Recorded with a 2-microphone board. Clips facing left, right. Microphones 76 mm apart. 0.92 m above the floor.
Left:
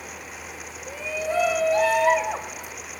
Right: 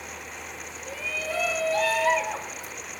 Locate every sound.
0.9 s a shout: 20° left (ahead or behind), 0.9 m